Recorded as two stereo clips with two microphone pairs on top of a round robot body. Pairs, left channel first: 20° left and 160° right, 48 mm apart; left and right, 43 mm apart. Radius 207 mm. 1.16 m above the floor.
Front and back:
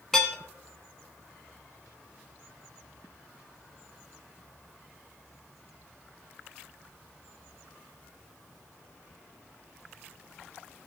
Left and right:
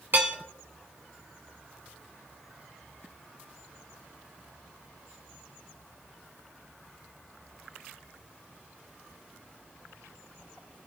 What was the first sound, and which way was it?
Dishes clattering, 60° right.